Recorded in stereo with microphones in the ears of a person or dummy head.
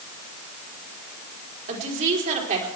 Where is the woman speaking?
40° right (ahead or behind), 3.5 m.